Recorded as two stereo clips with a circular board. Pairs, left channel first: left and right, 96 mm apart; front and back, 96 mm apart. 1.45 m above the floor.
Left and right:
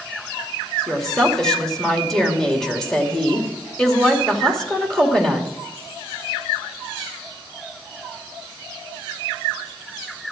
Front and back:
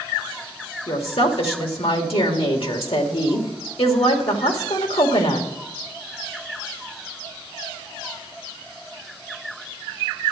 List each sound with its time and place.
0.9 s a woman speaking: 5° left, 2.5 m